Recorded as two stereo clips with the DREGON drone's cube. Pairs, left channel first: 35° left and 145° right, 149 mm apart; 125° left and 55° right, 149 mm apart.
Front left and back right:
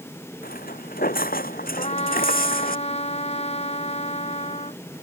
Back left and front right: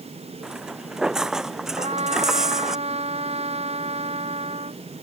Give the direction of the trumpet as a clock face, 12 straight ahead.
12 o'clock.